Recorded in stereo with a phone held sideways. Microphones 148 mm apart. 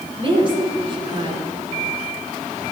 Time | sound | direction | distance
0.2 | a woman speaking | 40° right (ahead or behind) | 4.5 m